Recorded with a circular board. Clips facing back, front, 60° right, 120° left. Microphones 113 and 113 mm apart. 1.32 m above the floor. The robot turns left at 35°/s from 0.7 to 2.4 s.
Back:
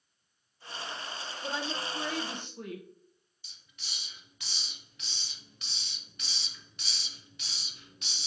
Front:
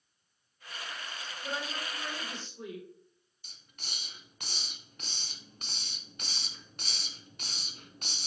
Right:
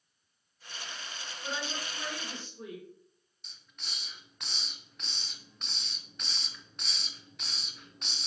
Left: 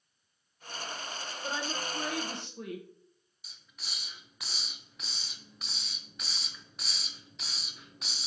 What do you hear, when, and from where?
1.4 s a woman speaking: straight behind, 0.9 m; by 2.9 s 145° left, 0.9 m
3.4 s a hiss: 35° left, 0.5 m